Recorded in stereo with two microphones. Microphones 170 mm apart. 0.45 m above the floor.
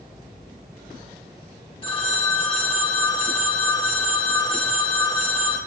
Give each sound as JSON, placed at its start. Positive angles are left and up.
{"t": 1.8, "sound": "a phone ringing", "side_deg": 30, "distance_m": 0.8}